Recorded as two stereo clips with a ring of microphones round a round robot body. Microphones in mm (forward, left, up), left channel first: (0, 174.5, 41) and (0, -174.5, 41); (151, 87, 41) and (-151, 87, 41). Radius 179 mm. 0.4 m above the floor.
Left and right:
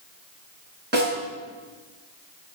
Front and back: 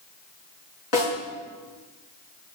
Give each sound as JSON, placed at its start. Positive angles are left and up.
{"t": 0.9, "sound": "a snare drum", "azimuth_deg": -25, "distance_m": 5.0}